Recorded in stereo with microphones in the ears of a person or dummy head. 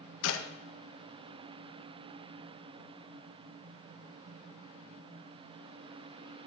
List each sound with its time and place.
0.2 s a clap: 75° left (ahead or behind), 1.2 m